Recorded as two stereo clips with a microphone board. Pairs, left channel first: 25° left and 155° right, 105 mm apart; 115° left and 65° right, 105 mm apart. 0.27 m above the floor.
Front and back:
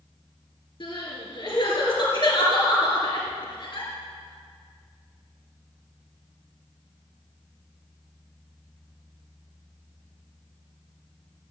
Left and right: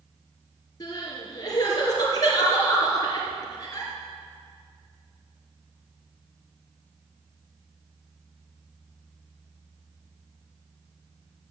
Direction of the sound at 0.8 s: 60° left.